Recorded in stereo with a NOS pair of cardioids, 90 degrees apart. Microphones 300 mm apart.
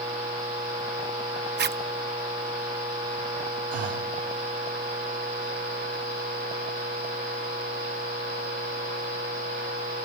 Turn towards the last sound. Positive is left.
turn(degrees=-50)